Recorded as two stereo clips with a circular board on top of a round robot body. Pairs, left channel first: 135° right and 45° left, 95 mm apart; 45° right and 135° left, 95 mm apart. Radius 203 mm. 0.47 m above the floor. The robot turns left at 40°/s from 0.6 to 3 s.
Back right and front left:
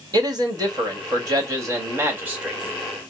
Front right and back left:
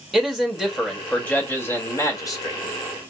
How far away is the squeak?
No squeak in this recording.